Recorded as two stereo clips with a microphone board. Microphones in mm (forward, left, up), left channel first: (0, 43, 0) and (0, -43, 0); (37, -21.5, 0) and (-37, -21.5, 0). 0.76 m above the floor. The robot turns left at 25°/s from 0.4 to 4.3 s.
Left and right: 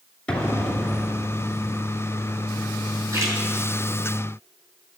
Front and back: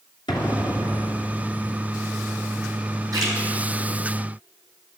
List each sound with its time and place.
0.3 s an explosion: 10° left, 2.5 m; by 1.2 s 10° right, 2.5 m
3.1 s a splash: 145° right, 5.5 m; by 3.3 s 150° right, 5.5 m